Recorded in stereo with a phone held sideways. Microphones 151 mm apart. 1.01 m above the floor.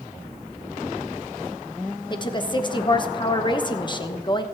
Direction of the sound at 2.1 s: 30° left (ahead or behind).